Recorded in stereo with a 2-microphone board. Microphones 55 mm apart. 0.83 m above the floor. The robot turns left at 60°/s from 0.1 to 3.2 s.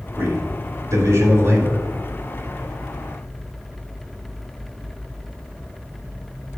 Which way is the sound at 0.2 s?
45° right.